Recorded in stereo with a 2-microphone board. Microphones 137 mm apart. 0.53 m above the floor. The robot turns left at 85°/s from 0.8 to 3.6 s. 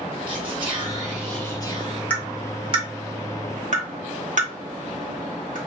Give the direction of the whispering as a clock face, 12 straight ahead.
5 o'clock.